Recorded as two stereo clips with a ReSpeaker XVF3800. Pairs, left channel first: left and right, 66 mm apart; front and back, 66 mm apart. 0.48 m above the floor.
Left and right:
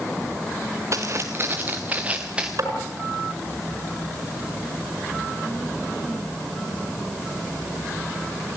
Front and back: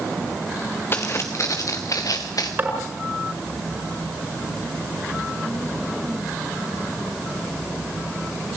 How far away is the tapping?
About 5.5 m.